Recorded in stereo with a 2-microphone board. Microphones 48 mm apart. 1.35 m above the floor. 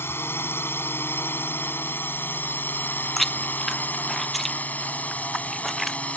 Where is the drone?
55° left (ahead or behind); by 6.2 s 30° left (ahead or behind).